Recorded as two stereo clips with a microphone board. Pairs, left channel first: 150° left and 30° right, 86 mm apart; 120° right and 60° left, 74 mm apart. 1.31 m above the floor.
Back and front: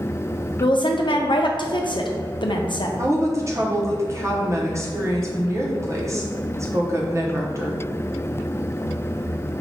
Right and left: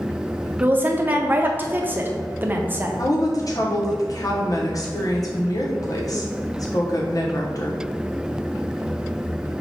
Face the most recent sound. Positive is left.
turn(degrees=-85)